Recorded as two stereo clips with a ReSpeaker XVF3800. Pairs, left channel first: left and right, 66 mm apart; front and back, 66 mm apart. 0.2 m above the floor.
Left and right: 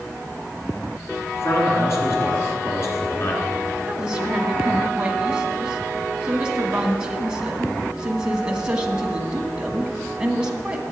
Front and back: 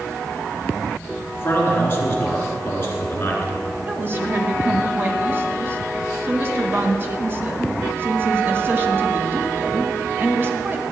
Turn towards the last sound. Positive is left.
turn(degrees=-160)